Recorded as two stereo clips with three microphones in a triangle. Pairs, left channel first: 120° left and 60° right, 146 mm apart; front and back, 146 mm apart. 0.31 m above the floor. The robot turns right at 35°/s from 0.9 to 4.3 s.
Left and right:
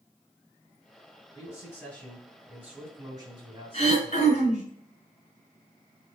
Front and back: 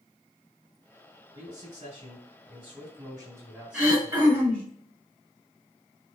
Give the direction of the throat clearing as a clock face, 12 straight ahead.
9 o'clock.